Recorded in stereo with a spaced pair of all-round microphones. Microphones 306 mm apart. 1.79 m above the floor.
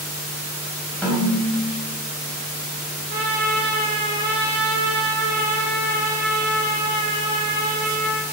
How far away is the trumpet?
About 2.5 m.